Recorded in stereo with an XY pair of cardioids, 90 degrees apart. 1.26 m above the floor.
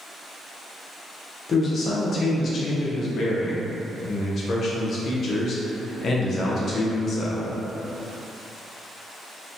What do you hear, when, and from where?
1.5 s a man speaking: 55° left, 0.7 m